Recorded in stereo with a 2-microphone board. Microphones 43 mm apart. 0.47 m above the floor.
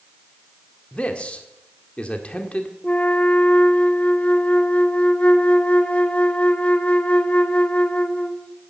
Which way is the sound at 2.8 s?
35° left (ahead or behind).